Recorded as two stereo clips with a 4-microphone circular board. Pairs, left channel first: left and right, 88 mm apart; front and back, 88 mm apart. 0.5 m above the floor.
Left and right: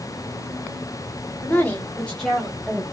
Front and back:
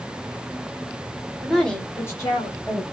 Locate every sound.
1.4 s a woman speaking: 95° left, 1.0 m; by 2.8 s 5° right, 1.5 m